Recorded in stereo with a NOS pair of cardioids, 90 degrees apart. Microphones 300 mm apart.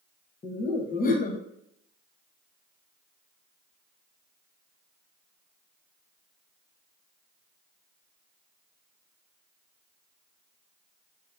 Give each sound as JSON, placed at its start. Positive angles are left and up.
{"t": 0.4, "sound": "laughter", "azimuth_deg": 30, "distance_m": 0.6}